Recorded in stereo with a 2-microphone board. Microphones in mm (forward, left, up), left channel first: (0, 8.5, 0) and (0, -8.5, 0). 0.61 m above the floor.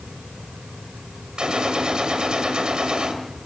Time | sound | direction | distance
1.4 | a gunshot | 65° right (ahead or behind) | 2.5 m